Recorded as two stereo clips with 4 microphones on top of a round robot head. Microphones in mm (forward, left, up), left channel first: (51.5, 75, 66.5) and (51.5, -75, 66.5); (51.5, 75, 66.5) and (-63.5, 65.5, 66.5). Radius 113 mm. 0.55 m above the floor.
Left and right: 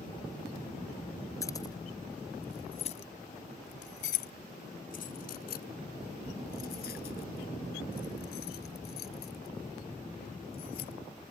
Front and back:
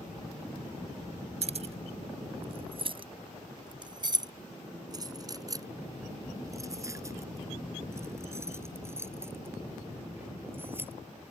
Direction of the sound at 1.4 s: 165° left.